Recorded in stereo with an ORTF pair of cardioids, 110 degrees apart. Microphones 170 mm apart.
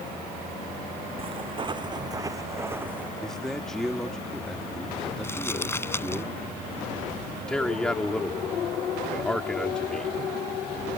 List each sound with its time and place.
1.2 s footsteps: 35° right; by 3.1 s 10° right
3.2 s a man speaking: 5° left
5.2 s crumpling: 15° left
7.5 s a man speaking: 5° left